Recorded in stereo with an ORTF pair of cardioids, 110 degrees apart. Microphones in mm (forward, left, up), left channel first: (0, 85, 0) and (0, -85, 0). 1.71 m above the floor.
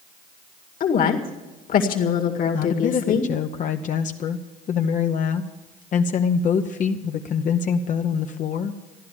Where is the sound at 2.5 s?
50° left, 0.8 m.